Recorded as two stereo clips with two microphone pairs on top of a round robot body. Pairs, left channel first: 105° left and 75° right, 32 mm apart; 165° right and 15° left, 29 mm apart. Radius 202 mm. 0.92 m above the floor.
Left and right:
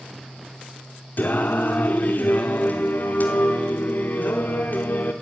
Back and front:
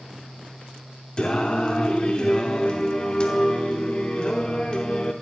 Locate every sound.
1.2 s singing: 135° left, 0.8 m